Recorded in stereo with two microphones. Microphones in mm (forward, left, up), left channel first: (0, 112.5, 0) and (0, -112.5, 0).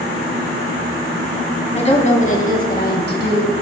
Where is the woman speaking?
30° left (ahead or behind), 1.8 m; by 3.5 s 55° left (ahead or behind), 2 m.